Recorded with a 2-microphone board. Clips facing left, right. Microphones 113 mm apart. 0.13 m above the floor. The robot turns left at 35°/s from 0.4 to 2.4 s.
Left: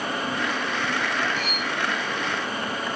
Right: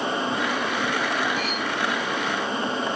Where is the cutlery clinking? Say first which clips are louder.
Right 2 dB; 85° left, 7 m; by 1.7 s 80° left, 7 m.